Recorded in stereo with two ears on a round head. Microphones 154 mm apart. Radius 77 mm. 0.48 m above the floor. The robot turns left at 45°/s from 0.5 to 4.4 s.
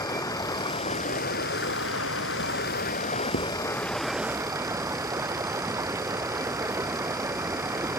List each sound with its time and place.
0.0 s running water: 160° left; by 8.0 s 15° right
3.3 s writing: 65° left (ahead or behind); by 3.5 s 55° left (ahead or behind)